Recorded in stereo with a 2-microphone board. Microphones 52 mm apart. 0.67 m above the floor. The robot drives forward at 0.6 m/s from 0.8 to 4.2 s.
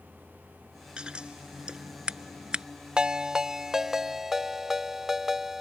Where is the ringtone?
15° right (ahead or behind); by 5.6 s 5° right (ahead or behind).